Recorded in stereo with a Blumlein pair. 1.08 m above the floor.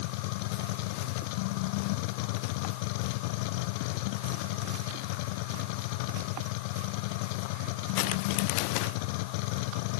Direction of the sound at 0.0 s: 45° left.